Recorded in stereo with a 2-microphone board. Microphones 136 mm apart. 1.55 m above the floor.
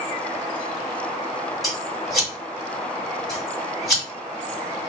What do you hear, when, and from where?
1.6 s scissors: centre (ahead or behind), 1.6 m